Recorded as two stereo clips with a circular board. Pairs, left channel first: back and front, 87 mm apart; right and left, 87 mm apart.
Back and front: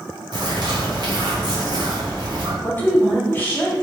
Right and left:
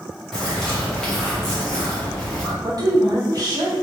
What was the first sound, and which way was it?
A bird, 10° right.